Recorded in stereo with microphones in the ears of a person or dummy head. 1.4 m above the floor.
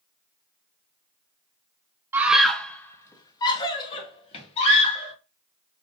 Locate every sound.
2.1 s a scream: 10° right (ahead or behind), 0.7 m; by 5.1 s 40° left (ahead or behind), 2.5 m